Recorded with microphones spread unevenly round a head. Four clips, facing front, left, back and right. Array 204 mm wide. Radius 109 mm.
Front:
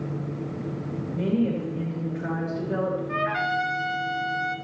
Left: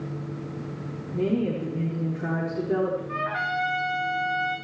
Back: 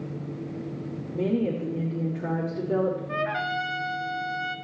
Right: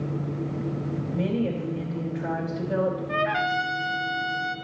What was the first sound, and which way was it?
A woman speaking, 140° left.